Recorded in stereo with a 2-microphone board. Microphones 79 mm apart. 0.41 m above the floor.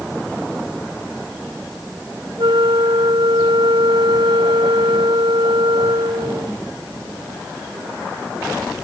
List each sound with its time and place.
2.4 s a flute: 80° right